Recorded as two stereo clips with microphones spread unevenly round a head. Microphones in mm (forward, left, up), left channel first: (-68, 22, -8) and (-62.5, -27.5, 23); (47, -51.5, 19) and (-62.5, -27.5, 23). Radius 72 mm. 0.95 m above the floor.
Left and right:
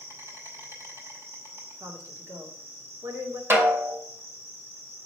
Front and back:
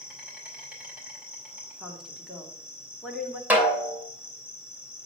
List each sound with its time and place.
0.0 s an insect: 110° right, 4 m
1.8 s a woman speaking: 105° right, 2 m
3.5 s a snare drum: 115° right, 2.5 m